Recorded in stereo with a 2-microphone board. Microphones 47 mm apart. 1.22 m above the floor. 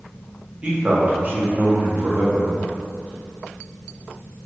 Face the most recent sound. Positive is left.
turn(degrees=-55)  # may be behind; listen again after turning